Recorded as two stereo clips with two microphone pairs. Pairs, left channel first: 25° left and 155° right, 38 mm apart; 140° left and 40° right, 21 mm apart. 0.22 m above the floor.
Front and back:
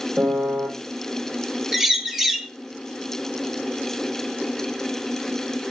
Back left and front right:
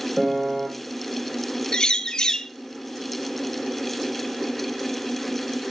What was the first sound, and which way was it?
A piano, 100° right.